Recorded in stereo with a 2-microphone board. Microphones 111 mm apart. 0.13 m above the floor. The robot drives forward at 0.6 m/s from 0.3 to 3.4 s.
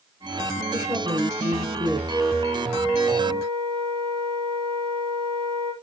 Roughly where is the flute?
Right.